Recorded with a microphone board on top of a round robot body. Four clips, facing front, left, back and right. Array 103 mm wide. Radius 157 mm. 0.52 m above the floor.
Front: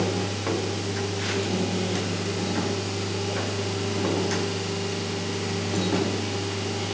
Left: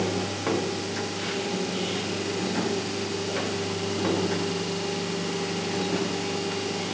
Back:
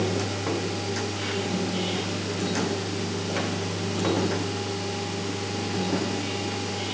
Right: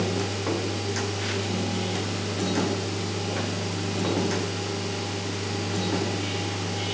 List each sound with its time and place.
Only background noise.